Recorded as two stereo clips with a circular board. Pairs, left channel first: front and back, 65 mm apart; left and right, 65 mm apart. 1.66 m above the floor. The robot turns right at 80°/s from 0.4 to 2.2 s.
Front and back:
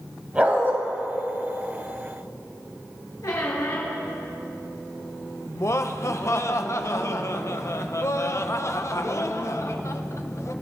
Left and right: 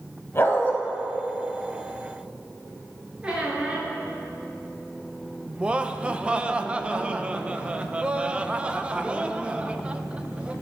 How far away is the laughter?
About 0.9 m.